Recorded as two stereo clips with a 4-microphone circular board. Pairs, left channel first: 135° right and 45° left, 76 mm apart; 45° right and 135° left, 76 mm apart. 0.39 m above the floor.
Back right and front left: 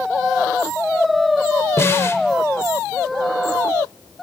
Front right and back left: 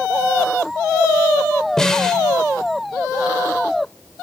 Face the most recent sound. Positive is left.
turn(degrees=-120)